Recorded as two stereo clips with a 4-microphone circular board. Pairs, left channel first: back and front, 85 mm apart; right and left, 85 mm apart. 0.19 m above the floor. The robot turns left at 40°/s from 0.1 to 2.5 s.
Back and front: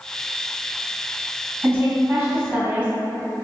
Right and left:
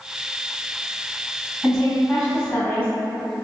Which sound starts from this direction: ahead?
A woman speaking, at 1.6 s.